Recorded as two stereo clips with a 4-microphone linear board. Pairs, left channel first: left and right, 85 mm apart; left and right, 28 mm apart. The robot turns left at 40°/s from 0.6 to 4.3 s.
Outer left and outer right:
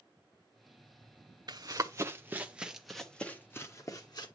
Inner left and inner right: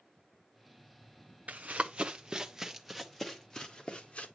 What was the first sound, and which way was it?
Running footsteps, 50° right (ahead or behind).